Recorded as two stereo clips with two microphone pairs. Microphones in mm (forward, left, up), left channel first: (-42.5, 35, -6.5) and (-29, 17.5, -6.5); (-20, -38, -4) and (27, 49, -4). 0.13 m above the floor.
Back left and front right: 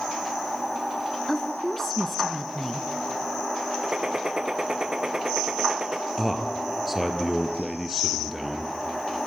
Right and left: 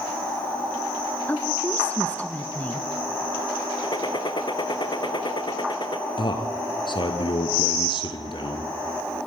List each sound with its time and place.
1.3 s a woman speaking: 175° right, 1.3 m
3.8 s a gunshot: 110° right, 1.1 m
6.2 s a man speaking: 140° right, 2.5 m